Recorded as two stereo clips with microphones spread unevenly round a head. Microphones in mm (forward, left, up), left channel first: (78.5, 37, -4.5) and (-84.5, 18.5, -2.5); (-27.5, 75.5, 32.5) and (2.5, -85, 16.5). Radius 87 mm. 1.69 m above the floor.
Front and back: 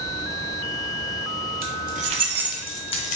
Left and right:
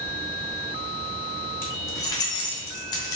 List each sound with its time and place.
1.6 s keys jangling: 175° left, 1.1 m; by 3.2 s 35° left, 0.8 m